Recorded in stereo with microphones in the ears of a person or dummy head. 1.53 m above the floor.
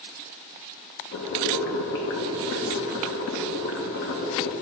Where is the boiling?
60° left (ahead or behind), 1.1 m.